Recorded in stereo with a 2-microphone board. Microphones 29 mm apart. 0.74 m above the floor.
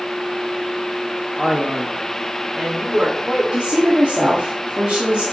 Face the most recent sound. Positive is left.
turn(degrees=-40)  # may be behind; listen again after turning